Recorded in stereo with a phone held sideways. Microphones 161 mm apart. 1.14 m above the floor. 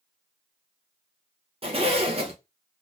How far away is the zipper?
About 0.9 m.